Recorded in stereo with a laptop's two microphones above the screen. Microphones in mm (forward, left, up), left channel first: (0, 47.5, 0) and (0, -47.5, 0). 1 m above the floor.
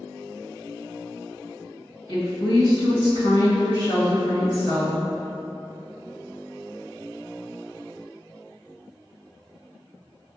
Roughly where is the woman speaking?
Left.